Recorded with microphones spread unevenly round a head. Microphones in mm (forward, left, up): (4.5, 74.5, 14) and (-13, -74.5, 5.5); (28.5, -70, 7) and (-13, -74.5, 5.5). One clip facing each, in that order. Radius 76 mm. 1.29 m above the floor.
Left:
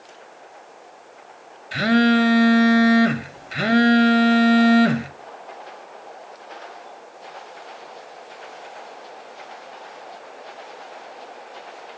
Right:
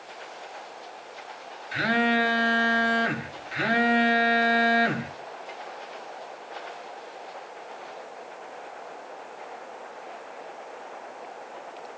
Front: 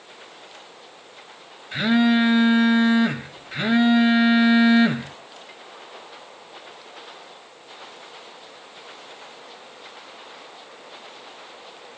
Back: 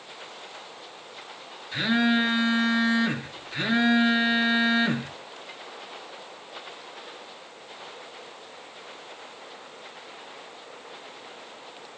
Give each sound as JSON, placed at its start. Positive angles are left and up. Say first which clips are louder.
{"t": 1.7, "sound": "a phone buzzing", "louder": "left 8 dB, front 4 dB", "azimuth_deg": 55, "distance_m": 1.9}